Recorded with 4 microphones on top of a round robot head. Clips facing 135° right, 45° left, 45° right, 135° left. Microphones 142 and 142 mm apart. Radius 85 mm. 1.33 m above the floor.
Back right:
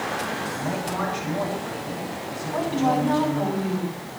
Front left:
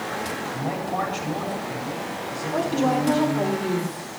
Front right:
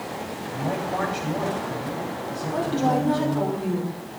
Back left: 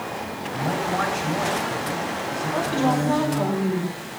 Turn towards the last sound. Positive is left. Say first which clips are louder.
# even, even
turn(degrees=5)